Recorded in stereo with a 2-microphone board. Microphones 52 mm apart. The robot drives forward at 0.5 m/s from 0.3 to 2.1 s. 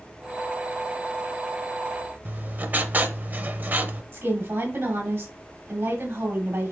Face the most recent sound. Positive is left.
turn(degrees=-50)  # may be behind; listen again after turning